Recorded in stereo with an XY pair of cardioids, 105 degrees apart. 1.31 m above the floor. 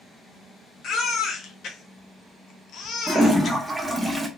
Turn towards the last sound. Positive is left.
turn(degrees=-10)